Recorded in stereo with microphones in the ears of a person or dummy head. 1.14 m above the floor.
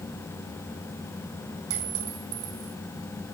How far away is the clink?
About 7.5 m.